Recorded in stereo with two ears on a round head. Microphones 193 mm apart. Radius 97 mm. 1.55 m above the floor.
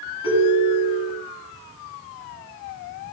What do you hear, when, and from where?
0.2 s a ringtone: 20° left (ahead or behind), 8.5 m